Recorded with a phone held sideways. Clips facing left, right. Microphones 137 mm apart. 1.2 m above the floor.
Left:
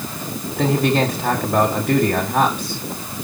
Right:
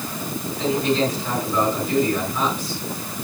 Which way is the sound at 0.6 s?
65° left (ahead or behind).